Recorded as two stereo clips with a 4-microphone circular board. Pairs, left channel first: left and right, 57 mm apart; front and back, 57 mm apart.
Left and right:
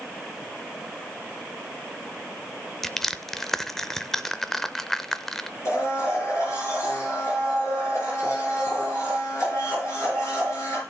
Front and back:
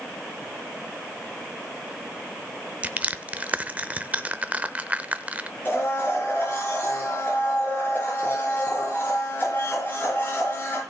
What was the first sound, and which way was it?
Crushing, 165° left.